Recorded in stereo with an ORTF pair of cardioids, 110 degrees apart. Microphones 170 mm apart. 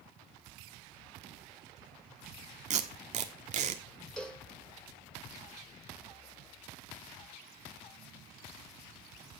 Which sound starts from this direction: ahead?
A cowbell, at 4.2 s.